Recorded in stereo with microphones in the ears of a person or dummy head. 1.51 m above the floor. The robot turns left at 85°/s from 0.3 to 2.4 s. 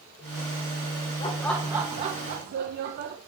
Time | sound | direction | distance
1.2 | laughter | 30° left | 0.8 m